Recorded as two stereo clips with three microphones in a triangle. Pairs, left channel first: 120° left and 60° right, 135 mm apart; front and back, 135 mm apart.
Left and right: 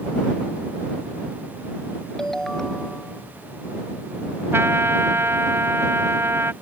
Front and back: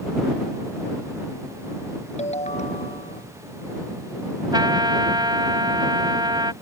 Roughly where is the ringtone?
Ahead left.